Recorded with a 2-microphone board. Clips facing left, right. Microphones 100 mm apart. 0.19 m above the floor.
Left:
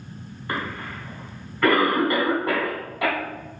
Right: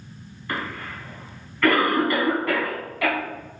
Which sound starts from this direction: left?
A cough, at 0.5 s.